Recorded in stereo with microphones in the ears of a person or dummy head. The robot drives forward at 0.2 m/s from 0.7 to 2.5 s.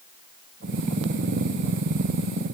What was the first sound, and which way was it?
Only background noise.